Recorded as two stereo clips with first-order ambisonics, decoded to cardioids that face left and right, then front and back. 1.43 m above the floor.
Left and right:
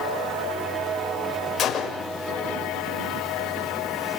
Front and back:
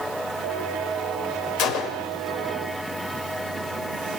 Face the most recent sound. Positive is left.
turn(degrees=30)